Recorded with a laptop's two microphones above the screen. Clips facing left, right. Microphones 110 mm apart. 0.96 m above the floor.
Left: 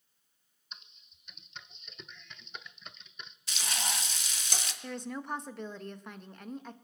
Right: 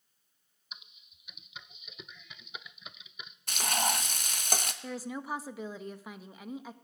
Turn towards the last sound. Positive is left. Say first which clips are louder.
# right 1 dB
turn(degrees=-5)  # may be behind; listen again after turning